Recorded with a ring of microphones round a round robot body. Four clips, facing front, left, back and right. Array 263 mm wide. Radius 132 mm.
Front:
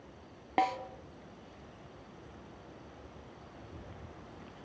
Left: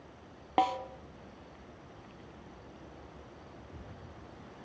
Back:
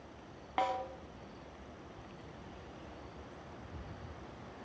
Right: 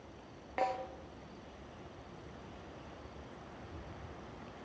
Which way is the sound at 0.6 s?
55° left.